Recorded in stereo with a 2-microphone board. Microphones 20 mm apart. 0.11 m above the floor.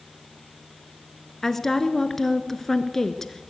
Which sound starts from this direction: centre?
A woman speaking, at 1.4 s.